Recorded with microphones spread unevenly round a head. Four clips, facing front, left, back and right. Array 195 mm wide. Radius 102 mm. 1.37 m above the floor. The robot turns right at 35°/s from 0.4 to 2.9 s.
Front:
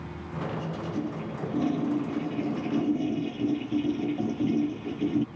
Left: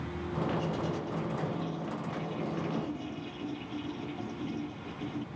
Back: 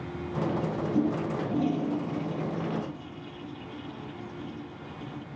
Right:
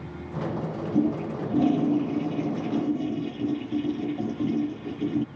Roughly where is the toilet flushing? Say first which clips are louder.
Right 10 dB, back 8 dB; behind right.